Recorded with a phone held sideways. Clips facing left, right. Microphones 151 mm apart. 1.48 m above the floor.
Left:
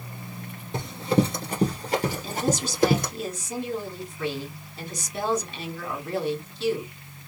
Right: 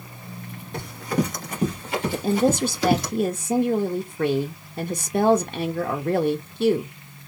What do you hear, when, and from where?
0.7 s running footsteps: 20° left (ahead or behind), 1.5 m; by 3.1 s 50° left (ahead or behind), 2 m
2.1 s a woman speaking: 55° right (ahead or behind), 0.6 m